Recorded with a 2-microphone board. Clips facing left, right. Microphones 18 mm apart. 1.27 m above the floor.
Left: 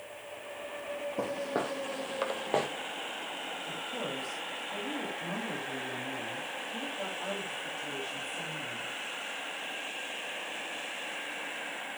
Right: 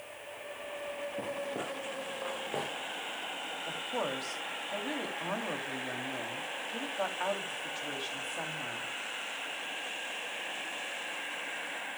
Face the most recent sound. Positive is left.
turn(degrees=-75)  # may be behind; listen again after turning